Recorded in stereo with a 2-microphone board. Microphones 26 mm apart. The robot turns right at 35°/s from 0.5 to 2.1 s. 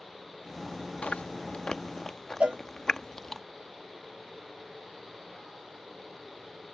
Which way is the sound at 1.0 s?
60° left (ahead or behind).